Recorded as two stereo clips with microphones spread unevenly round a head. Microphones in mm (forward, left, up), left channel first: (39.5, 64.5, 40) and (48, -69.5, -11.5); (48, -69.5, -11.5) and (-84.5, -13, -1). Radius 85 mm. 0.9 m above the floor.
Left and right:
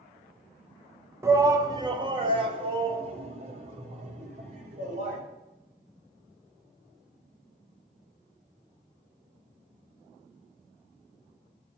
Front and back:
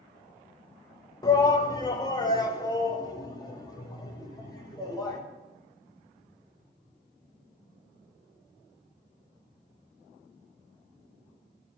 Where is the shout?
65° right, 1.1 m; by 5.2 s 80° right, 3 m.